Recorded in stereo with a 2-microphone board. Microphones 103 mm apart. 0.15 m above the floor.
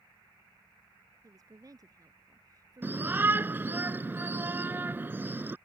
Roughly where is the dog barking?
I don't hear a dog barking.